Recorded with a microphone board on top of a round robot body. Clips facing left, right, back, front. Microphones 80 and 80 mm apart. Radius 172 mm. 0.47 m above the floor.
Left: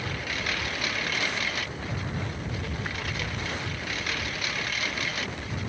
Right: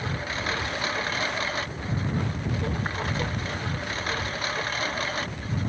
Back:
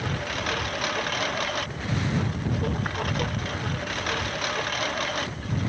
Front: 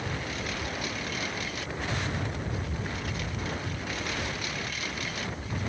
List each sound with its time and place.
0.0 s a lawn mower: 150° right; by 5.7 s 145° right